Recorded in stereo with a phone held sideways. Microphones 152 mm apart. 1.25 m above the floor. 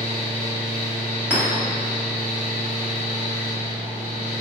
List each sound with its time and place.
0.0 s a fan: 65° right (ahead or behind), 1.1 m
1.3 s a clink: 15° right (ahead or behind), 1.2 m